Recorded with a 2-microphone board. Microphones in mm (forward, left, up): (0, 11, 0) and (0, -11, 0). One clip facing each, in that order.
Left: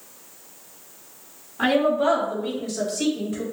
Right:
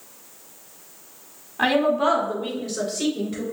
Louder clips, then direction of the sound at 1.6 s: Even; 45° right (ahead or behind).